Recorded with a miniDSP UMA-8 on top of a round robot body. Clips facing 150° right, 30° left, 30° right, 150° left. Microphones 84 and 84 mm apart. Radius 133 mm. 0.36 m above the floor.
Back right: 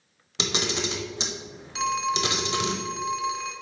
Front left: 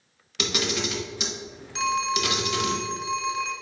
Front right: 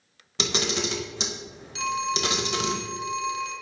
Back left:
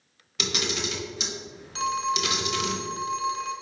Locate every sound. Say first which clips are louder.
0.4 s a camera shutter: front left 1 dB, front right 3 dB; 90° right, 1.2 m
1.8 s a phone ringing: front left 1 dB, back left 1 dB; 125° left, 1.2 m